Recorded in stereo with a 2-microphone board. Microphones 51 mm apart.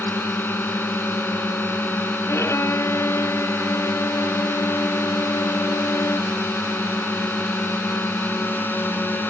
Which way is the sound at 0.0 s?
40° left (ahead or behind).